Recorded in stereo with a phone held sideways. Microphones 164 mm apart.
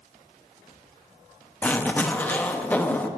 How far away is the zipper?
About 0.8 m.